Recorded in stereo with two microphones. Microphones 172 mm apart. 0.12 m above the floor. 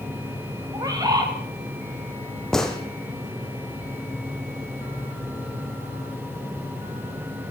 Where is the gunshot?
5° left (ahead or behind), 3 m.